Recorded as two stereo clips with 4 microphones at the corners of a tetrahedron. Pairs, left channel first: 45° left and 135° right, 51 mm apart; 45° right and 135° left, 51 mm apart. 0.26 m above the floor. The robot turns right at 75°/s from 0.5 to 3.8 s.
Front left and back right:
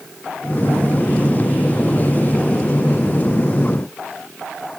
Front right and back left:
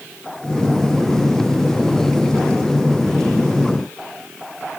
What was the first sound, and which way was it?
Only background noise.